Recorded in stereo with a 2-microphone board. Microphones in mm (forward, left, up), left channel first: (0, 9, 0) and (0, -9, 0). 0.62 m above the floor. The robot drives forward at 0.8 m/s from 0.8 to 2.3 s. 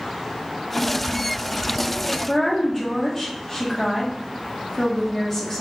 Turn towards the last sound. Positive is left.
turn(degrees=20)  # may be behind; listen again after turning